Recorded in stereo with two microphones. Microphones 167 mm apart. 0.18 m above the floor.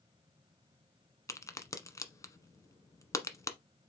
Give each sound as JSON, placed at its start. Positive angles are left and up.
{"t": 1.3, "sound": "a crack", "side_deg": 20, "distance_m": 1.1}